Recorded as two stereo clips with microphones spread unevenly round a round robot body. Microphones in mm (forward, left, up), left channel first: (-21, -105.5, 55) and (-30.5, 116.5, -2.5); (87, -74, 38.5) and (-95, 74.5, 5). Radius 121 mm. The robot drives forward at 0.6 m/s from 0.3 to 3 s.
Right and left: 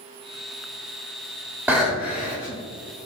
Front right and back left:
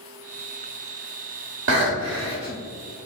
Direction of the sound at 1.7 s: 170° left.